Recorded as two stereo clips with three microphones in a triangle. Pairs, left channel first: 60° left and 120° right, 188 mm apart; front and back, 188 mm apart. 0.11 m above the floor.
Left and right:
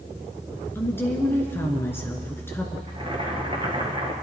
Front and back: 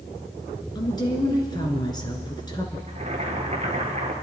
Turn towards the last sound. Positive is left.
turn(degrees=-160)